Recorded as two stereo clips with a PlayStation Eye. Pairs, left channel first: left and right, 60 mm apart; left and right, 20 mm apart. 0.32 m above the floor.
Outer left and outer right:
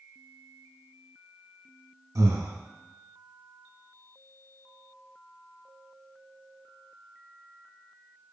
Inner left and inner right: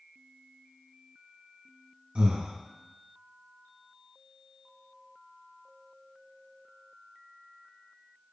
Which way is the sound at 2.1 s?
70° right (ahead or behind).